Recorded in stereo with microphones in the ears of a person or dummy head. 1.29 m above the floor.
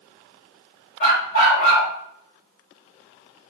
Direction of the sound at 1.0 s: 40° left (ahead or behind).